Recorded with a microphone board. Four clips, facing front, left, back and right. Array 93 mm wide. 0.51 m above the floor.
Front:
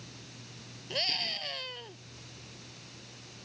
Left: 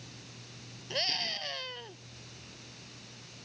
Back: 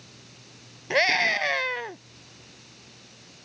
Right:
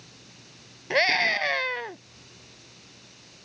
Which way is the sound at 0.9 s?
135° right.